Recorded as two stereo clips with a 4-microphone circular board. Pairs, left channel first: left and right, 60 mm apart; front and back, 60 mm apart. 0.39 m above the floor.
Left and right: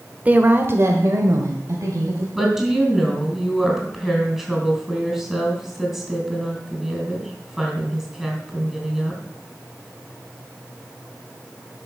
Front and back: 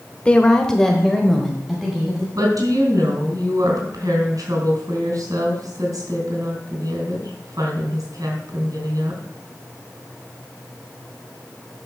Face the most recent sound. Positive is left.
turn(degrees=-170)